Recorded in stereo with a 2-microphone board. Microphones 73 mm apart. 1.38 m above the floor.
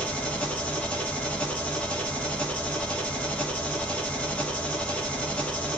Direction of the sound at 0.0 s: 15° left (ahead or behind).